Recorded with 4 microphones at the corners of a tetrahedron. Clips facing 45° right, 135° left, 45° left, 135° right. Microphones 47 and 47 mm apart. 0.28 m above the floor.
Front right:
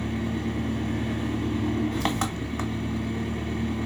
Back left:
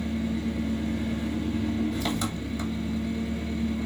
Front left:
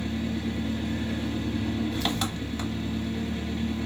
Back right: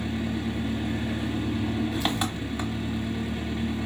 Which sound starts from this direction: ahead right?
An engine running, at 0.0 s.